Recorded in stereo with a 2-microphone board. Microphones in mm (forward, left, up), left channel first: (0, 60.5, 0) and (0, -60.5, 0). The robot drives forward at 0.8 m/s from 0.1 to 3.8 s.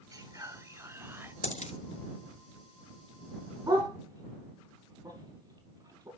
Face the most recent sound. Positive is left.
turn(degrees=-35)  # may be behind; listen again after turning